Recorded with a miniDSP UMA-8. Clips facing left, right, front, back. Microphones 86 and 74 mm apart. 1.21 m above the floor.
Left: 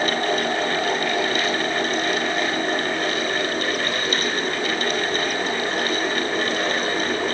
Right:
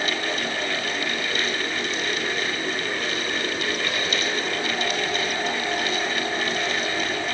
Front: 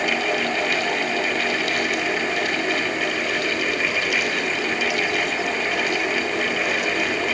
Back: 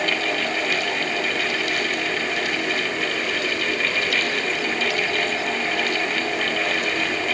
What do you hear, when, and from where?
Only background noise.